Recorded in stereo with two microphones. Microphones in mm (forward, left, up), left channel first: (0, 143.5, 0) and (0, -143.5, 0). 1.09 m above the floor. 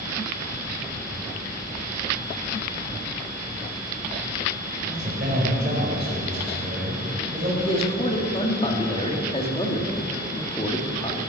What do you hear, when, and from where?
4.8 s a man speaking: 40° right (ahead or behind), 5 m
7.6 s a man speaking: 20° left (ahead or behind), 1.8 m